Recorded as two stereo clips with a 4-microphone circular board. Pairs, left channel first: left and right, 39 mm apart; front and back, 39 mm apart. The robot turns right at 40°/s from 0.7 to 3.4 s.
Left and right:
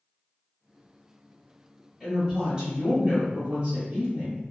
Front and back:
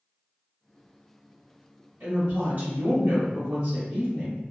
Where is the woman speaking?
170° left, 1.3 m; by 4.4 s 135° right, 1.3 m.